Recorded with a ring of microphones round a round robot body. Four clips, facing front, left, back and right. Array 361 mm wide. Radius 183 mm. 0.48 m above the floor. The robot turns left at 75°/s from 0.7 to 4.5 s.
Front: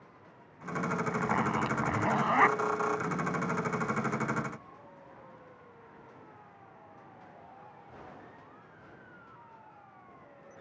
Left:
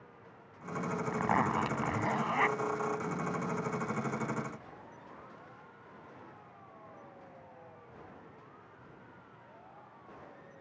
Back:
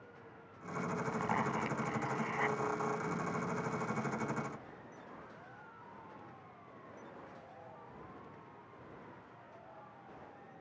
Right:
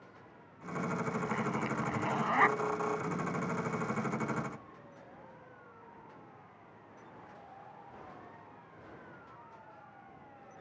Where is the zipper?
85° left; by 2.6 s 25° right.